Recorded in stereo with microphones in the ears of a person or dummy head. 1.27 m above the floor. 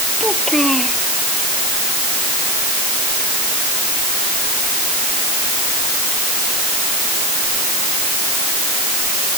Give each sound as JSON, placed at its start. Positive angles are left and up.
{"t": 0.2, "sound": "a child speaking", "side_deg": 0}